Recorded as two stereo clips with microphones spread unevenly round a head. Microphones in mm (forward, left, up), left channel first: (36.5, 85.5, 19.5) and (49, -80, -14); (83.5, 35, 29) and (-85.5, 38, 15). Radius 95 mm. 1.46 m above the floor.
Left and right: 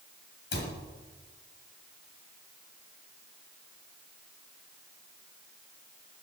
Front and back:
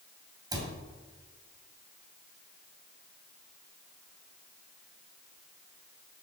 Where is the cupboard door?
110° left, 3 m.